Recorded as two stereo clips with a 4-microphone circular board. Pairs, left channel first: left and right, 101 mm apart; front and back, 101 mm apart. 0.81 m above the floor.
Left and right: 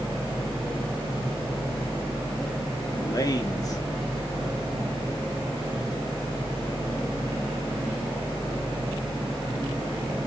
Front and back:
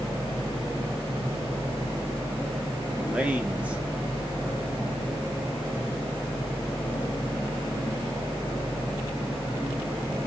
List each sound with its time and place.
3.0 s a man speaking: 110° left, 0.8 m